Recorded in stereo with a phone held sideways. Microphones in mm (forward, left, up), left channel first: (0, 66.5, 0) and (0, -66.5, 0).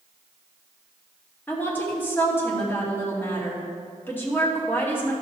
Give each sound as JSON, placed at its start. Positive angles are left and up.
{"t": 1.5, "sound": "a woman speaking", "side_deg": 15, "distance_m": 2.0}